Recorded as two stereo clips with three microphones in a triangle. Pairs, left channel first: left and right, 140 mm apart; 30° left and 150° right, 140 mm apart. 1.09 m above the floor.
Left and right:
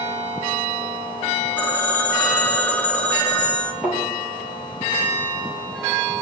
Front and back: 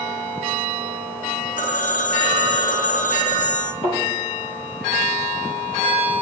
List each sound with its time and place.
1.6 s a phone ringing: 15° left, 1.3 m
3.8 s a thud: 5° right, 4 m